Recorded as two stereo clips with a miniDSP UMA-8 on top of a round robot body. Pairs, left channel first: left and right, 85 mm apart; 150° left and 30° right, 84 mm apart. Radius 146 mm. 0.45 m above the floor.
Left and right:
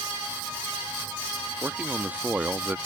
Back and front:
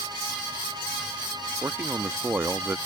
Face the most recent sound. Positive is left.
turn(degrees=-40)